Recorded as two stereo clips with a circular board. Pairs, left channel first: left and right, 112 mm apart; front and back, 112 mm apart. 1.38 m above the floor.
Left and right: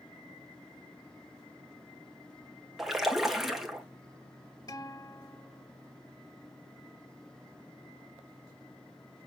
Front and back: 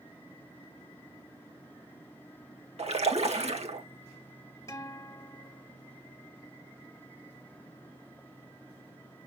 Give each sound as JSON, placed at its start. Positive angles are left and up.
{"t": 2.8, "sound": "a splash", "azimuth_deg": 180, "distance_m": 1.8}
{"t": 4.7, "sound": "a guitar", "azimuth_deg": 55, "distance_m": 1.7}